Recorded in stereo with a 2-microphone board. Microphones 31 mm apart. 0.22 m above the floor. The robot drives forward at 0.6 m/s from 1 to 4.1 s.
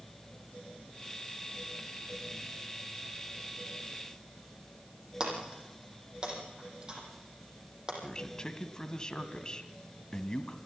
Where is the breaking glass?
25° right (ahead or behind), 5 m.